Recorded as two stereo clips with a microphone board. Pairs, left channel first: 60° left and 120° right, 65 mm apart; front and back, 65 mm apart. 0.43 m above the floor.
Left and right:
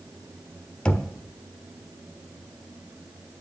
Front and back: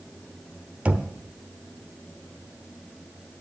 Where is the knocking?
125° left, 0.9 m.